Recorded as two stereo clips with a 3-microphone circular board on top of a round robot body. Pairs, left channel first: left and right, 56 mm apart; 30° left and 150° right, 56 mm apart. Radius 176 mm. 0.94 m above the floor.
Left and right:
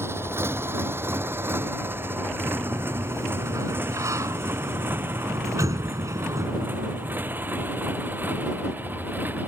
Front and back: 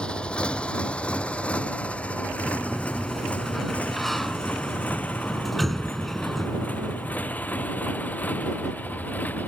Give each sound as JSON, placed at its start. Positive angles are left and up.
{"t": 0.0, "sound": "a motorcycle", "azimuth_deg": -45}
{"t": 2.5, "sound": "a sliding door", "azimuth_deg": -60}